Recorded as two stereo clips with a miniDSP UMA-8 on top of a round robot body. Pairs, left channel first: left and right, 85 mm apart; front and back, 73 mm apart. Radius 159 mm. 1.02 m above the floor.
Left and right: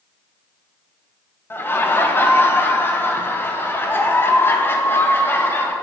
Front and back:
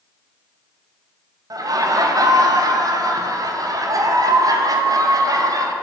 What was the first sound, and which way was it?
Laughter, 150° left.